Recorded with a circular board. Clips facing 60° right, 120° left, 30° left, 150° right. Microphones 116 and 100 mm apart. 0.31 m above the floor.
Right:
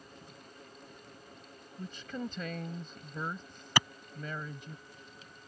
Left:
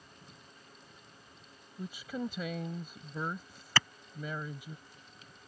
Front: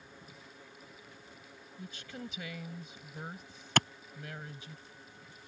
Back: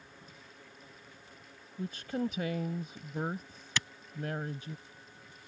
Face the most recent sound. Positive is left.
turn(degrees=10)